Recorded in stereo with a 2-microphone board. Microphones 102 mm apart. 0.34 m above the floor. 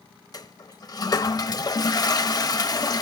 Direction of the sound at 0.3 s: 40° left (ahead or behind).